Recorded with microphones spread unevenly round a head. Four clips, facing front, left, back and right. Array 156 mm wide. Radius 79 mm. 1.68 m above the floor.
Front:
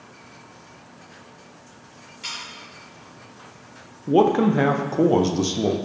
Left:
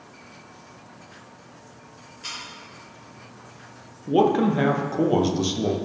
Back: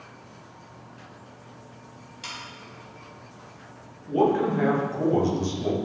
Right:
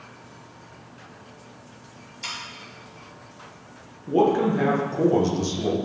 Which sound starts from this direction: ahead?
A man speaking, at 4.1 s.